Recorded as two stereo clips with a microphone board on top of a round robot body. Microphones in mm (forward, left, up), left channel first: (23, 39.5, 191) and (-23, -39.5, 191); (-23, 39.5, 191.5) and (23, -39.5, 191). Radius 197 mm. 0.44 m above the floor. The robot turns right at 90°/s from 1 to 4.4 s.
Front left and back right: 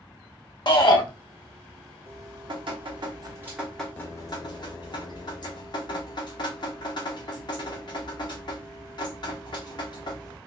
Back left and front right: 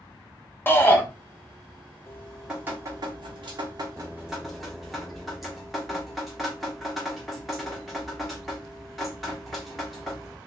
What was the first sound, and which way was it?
A shout, 60° left.